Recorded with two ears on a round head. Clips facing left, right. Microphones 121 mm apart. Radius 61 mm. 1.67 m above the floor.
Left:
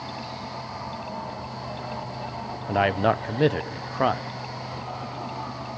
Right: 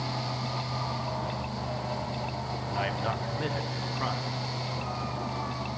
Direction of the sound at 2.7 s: 70° left (ahead or behind).